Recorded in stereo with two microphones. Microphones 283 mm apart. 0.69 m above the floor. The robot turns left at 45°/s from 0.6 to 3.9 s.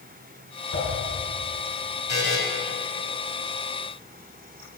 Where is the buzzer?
70° left (ahead or behind), 3 m; by 2.4 s 60° left (ahead or behind), 3 m.